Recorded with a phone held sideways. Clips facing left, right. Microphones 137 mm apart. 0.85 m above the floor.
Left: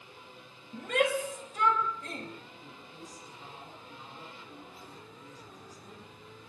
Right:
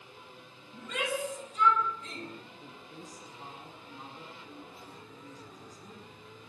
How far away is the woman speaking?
About 8 m.